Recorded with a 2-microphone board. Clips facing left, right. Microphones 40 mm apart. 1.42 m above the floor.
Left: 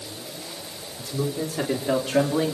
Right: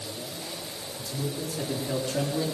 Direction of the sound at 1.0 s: 55° left (ahead or behind).